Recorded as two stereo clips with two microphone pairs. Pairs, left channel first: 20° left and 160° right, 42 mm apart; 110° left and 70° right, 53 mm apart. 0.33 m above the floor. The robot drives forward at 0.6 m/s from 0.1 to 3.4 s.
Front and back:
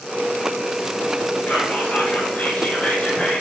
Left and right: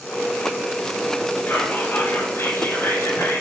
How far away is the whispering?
About 5.5 m.